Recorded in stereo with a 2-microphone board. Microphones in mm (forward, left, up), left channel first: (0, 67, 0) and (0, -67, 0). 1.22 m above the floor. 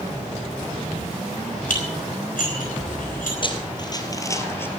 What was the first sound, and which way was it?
Dishes clattering, 85° left.